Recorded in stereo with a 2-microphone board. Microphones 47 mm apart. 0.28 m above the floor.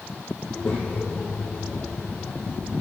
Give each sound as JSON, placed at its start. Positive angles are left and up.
{"t": 0.4, "sound": "a child speaking", "side_deg": 20, "distance_m": 7.5}